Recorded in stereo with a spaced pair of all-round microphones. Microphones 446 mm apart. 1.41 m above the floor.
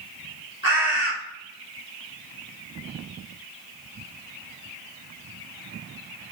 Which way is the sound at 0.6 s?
45° left (ahead or behind).